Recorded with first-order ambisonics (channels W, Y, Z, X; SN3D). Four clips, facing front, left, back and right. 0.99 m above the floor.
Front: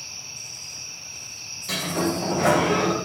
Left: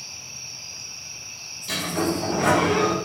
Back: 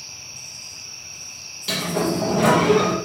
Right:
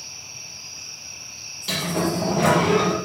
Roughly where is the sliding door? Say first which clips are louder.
Right 1 dB, back 3 dB; behind right.